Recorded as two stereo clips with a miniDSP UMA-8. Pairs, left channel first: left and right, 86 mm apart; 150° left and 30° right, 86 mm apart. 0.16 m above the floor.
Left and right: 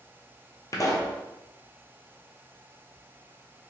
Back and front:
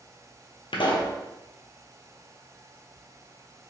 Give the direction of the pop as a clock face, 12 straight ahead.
7 o'clock.